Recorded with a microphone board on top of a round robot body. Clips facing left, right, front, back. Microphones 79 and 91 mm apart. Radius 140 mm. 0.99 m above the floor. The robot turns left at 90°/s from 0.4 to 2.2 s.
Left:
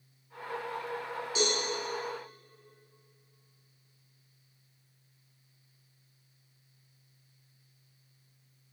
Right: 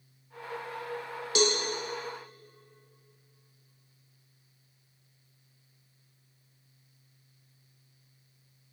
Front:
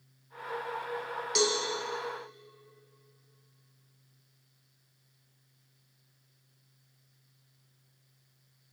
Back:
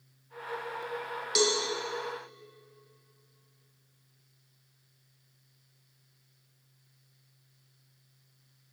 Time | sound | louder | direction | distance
1.4 | a cowbell | right 4 dB, back 1 dB | 95° right | 0.9 m